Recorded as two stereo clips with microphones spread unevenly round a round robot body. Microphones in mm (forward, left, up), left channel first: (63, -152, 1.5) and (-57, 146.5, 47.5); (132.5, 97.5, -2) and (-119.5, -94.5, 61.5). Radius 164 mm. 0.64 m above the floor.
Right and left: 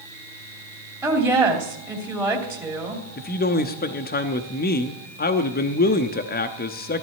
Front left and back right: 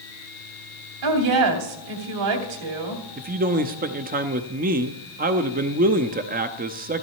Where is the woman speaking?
165° right, 2.5 m.